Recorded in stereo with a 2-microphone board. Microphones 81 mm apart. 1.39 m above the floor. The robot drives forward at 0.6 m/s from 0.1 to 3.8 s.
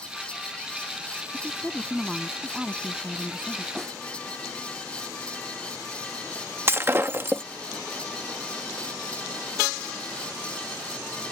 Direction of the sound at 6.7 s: 30° right (ahead or behind).